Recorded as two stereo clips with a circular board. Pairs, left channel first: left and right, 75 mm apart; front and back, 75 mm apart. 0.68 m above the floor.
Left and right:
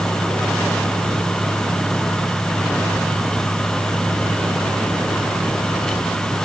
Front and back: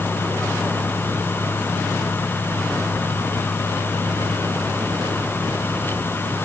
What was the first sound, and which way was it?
Only background noise.